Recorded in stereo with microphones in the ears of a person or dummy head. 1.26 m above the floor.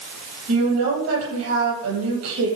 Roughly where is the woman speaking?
Right.